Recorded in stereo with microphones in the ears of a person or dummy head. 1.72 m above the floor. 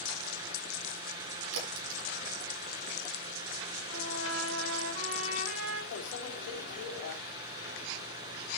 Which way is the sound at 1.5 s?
75° right (ahead or behind).